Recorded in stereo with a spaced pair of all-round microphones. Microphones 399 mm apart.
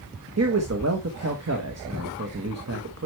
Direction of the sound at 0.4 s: 40° right (ahead or behind).